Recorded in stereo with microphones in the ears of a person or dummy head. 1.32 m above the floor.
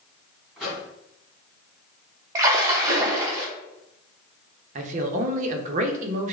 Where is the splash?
20° right (ahead or behind), 0.7 m.